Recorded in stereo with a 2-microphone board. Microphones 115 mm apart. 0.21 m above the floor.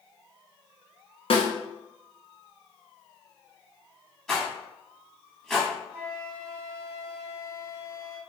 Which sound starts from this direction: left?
A snare drum, at 1.3 s.